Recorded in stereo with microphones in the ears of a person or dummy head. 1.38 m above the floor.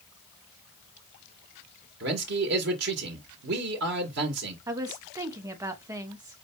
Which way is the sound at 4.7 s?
10° right (ahead or behind).